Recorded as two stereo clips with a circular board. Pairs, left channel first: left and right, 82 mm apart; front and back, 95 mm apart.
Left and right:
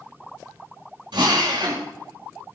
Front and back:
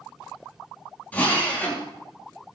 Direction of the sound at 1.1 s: 75° right.